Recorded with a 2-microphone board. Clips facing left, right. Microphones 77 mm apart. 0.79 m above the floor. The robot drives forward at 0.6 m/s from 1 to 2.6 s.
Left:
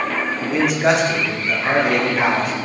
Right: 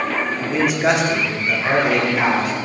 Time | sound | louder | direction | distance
0.4 | a man speaking | left 1 dB | centre (ahead or behind) | 1.4 m